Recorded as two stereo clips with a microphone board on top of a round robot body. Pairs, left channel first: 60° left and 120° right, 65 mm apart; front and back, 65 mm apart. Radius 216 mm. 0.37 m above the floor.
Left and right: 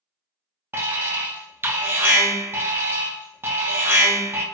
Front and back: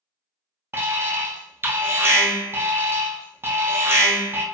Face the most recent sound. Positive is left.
turn(degrees=-150)